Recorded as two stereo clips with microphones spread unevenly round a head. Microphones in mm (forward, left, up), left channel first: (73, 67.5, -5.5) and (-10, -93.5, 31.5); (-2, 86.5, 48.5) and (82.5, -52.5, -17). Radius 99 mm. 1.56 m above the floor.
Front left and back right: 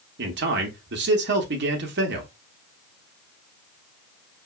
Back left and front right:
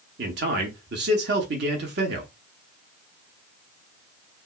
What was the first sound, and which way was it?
A man speaking, 90° right.